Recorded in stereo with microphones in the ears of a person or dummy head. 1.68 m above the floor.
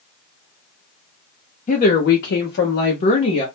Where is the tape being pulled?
No tape being pulled in this recording.